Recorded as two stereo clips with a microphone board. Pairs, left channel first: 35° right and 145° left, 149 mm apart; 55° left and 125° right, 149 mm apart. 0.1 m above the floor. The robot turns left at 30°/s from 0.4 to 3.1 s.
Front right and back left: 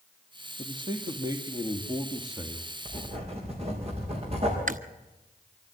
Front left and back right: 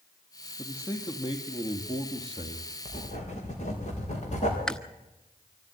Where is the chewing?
140° left, 0.6 m.